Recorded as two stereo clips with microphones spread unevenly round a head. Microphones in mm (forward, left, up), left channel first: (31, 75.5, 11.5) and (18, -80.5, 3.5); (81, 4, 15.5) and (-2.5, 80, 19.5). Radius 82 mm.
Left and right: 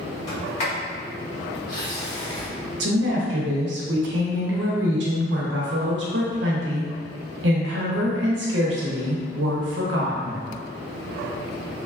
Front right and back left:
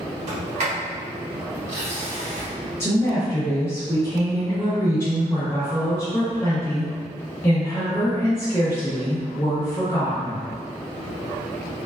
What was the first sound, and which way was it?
A sliding door, 135° left.